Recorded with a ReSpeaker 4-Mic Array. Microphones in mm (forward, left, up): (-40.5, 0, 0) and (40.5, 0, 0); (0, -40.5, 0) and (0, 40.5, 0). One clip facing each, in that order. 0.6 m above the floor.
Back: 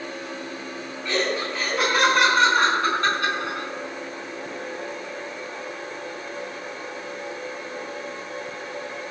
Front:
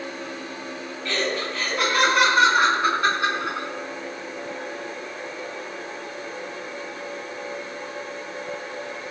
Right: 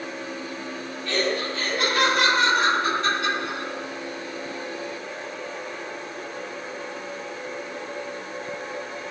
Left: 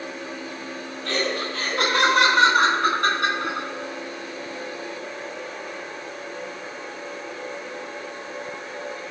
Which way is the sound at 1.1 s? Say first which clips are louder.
Back 1 dB, right 1 dB; 105° left.